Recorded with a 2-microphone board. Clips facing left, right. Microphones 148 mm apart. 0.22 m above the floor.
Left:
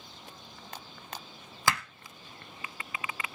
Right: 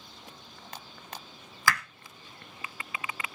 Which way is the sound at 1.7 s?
25° left (ahead or behind).